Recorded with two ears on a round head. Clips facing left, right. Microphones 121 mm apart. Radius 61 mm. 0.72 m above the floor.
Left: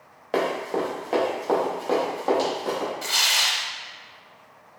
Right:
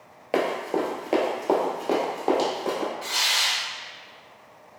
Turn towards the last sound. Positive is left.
turn(degrees=60)  # may be behind; listen again after turning